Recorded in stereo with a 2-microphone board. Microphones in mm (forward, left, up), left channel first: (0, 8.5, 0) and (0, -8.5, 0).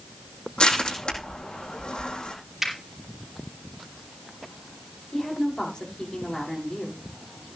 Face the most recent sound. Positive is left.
turn(degrees=35)  # may be behind; listen again after turning